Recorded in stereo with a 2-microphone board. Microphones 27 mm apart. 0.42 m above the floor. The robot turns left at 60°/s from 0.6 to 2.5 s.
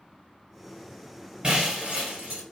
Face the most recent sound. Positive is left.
turn(degrees=-100)